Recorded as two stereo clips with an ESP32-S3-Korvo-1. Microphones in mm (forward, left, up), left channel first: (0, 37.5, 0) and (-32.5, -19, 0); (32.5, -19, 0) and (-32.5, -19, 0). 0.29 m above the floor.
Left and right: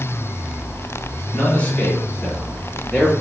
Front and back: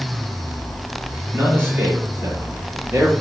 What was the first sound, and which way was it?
A man speaking, 125° left.